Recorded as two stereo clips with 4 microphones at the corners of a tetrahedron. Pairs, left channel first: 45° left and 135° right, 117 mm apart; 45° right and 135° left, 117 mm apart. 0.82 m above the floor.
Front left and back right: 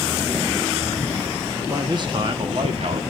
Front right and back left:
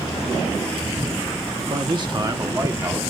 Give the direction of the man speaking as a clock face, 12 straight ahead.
7 o'clock.